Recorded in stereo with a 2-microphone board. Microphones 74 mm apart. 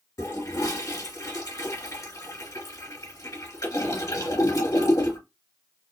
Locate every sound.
0.2 s a toilet flushing: 55° left (ahead or behind), 1.9 m